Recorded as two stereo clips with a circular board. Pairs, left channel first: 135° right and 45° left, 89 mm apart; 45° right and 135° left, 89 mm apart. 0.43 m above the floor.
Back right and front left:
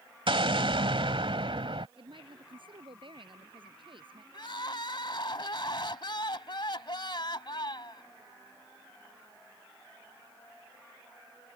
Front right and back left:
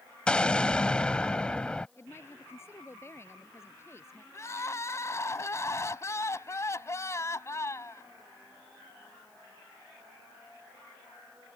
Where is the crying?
105° right.